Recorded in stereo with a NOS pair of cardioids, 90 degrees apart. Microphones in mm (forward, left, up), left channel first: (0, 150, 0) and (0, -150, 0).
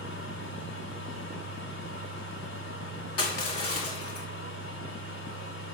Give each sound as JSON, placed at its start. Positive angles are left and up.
{"t": 0.0, "sound": "a fan", "azimuth_deg": 65, "distance_m": 1.7}
{"t": 3.2, "sound": "crushing", "azimuth_deg": 55, "distance_m": 1.4}